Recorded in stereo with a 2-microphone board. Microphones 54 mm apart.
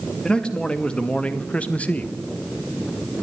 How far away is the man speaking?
About 2 m.